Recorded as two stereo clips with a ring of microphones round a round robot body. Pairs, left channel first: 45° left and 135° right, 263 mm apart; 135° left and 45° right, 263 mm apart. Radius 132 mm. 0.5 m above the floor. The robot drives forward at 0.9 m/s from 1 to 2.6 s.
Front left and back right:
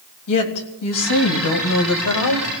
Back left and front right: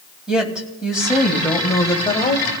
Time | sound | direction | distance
0.3 | a woman speaking | 45° left | 2.5 m